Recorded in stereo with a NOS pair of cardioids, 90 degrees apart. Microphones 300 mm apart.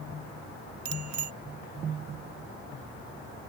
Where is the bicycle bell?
65° right.